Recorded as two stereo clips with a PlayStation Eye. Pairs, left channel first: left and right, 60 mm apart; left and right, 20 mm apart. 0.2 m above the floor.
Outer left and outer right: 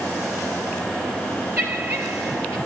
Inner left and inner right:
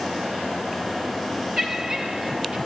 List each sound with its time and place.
1.6 s laughter: 30° right (ahead or behind), 4 m; by 2.6 s 45° right (ahead or behind), 4.5 m